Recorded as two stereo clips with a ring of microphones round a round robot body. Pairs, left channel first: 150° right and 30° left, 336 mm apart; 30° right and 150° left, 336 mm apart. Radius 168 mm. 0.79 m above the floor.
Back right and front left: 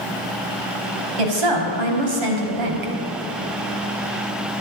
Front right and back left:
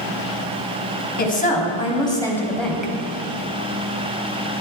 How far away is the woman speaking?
About 4.5 m.